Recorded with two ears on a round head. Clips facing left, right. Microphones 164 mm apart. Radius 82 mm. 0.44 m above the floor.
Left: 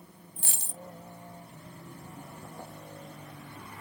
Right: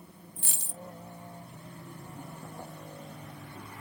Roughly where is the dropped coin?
Left.